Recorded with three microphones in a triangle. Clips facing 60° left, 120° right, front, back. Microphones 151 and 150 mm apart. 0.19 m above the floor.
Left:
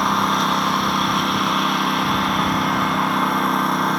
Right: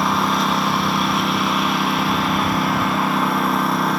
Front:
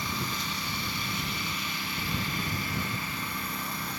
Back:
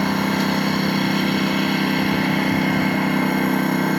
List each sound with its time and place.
0.0 s a lawn mower: 150° left